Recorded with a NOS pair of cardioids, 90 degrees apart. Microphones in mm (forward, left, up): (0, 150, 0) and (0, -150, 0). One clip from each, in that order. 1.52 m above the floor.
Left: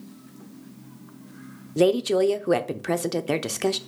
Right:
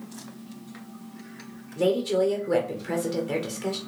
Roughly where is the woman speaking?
Ahead left.